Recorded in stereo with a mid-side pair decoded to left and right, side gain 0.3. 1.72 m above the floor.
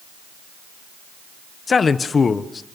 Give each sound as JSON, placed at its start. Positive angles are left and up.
{"t": 1.7, "sound": "a man speaking", "azimuth_deg": 55, "distance_m": 1.4}